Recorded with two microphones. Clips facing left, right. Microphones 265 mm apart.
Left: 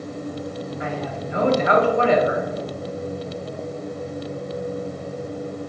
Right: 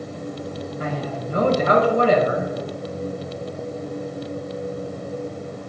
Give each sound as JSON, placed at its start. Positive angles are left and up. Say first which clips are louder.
{"t": 0.8, "sound": "a man speaking", "louder": "right 2 dB", "side_deg": -40, "distance_m": 1.7}